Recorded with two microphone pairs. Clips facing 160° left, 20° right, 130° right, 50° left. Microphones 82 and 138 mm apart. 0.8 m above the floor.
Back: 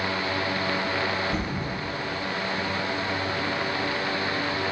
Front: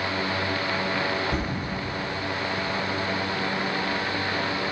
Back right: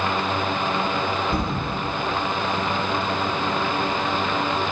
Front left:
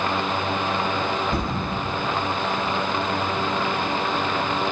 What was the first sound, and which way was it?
A thud, 65° right.